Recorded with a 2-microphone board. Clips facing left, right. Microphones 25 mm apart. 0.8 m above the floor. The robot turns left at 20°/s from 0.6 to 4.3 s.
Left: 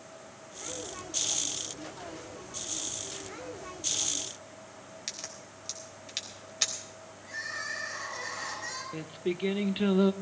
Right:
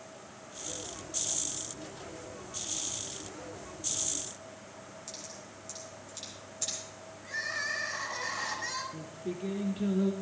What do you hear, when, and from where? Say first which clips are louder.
5.1 s a crack: left 7 dB; 80° left, 3 m
7.2 s crying: right 2 dB; 25° right (ahead or behind), 6 m
8.9 s singing: left 5 dB; 75° left (ahead or behind), 0.8 m